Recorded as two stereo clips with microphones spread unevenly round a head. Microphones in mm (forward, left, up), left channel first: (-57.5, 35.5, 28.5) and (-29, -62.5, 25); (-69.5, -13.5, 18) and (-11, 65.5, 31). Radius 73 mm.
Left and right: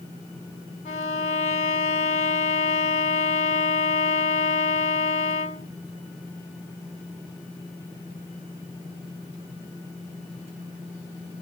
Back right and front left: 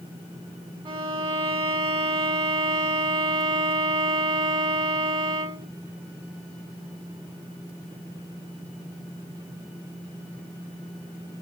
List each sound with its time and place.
0.8 s a violin: 90° left, 1.4 m